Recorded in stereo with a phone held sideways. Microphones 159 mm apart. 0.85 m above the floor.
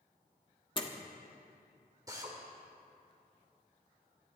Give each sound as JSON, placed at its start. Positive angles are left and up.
{"t": 0.8, "sound": "a door slam", "side_deg": 35, "distance_m": 1.5}
{"t": 2.1, "sound": "a drill", "side_deg": -20, "distance_m": 2.5}